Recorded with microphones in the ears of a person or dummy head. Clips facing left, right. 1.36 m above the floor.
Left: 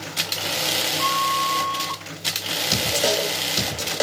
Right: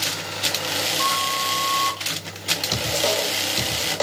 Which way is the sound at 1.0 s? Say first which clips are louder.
Left 2 dB; 25° right (ahead or behind).